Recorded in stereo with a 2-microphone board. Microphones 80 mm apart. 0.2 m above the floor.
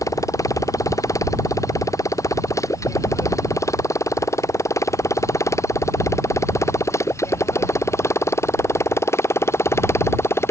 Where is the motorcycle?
45° left (ahead or behind); by 10.5 s 35° left (ahead or behind).